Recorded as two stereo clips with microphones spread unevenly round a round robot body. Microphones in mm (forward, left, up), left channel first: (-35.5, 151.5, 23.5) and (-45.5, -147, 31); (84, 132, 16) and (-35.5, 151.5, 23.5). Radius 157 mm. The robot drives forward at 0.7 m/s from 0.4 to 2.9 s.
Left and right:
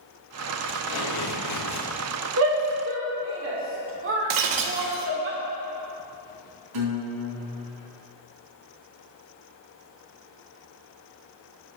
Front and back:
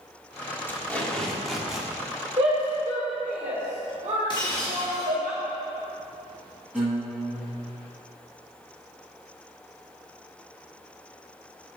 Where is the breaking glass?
75° right, 0.7 m.